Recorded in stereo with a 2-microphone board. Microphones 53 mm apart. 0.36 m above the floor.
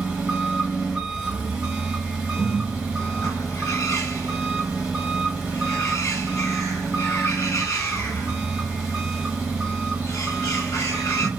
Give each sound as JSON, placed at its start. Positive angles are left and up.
{"t": 0.0, "sound": "an engine running", "side_deg": -10, "distance_m": 1.4}
{"t": 2.4, "sound": "a bird", "side_deg": 85, "distance_m": 1.0}